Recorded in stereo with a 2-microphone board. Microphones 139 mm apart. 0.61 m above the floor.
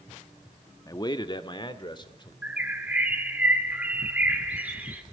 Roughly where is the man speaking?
Left.